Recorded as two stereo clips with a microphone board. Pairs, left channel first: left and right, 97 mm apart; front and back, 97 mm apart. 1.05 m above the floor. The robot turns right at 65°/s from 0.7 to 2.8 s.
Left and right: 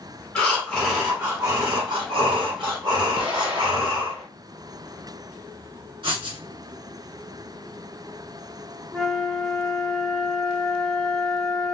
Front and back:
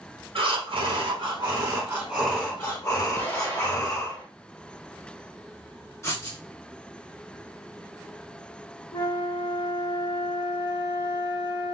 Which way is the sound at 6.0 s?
60° right.